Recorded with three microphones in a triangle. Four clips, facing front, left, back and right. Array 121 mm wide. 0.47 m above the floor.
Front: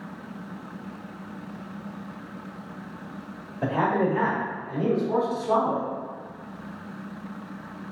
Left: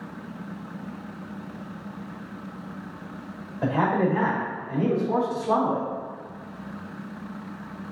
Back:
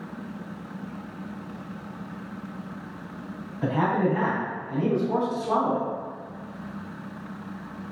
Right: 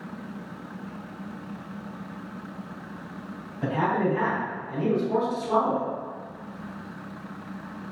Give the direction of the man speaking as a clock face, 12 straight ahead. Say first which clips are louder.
Left 2 dB, even; 10 o'clock.